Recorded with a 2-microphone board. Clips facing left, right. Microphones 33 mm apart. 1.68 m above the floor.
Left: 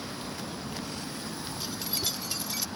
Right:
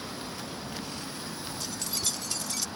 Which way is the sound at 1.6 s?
15° left (ahead or behind).